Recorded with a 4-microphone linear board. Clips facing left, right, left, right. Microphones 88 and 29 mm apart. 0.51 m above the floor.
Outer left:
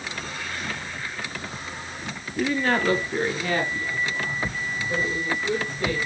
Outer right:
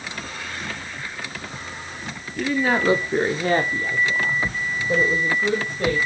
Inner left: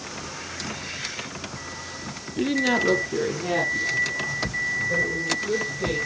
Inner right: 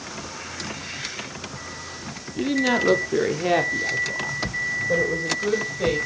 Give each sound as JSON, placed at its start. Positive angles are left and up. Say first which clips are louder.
{"t": 2.4, "sound": "a woman speaking", "louder": "outer right 2 dB, inner right 1 dB", "side_deg": 5, "distance_m": 0.8}